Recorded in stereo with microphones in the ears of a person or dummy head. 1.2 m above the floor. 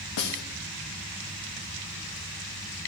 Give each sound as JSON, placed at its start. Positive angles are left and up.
{"t": 0.2, "sound": "a snare drum", "side_deg": 75, "distance_m": 0.8}